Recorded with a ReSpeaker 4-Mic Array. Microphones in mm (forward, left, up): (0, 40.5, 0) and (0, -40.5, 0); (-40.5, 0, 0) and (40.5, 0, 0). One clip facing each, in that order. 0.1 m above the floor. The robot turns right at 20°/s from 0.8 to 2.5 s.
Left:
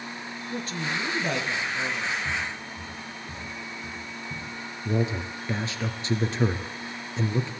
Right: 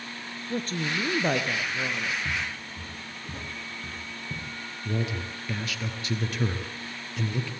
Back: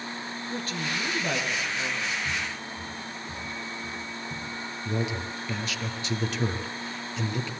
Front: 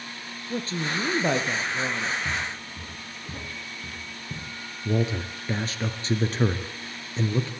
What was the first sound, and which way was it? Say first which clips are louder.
A woman speaking: right 2 dB, front 4 dB; 55° right.